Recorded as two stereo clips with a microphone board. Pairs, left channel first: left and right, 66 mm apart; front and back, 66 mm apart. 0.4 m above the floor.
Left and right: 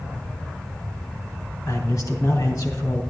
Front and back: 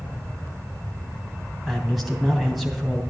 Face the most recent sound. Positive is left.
turn(degrees=95)